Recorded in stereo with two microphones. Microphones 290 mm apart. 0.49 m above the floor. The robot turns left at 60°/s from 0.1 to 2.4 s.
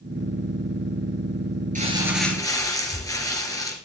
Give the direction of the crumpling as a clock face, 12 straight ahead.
5 o'clock.